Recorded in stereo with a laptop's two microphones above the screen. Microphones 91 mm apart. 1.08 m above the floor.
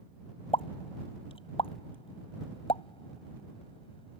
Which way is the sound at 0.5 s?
75° left (ahead or behind).